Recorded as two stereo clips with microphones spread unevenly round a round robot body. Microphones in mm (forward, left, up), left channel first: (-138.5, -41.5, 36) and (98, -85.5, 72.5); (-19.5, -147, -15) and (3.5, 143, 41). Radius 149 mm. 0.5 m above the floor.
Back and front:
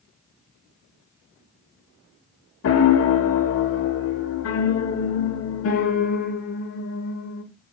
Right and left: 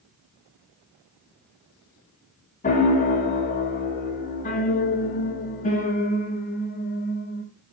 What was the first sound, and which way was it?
A piano, 160° right.